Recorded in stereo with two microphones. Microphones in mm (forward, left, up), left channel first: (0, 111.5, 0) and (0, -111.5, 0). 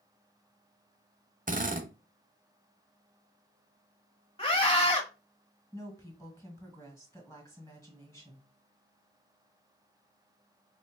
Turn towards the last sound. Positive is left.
turn(degrees=15)  # may be behind; listen again after turning